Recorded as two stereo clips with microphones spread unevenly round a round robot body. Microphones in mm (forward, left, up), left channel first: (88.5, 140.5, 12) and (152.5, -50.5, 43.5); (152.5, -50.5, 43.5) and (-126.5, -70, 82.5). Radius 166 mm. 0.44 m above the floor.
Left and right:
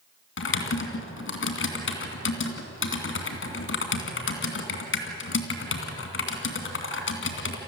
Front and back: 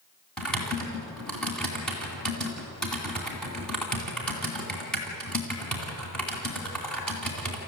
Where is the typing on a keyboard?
90° left, 2.5 m.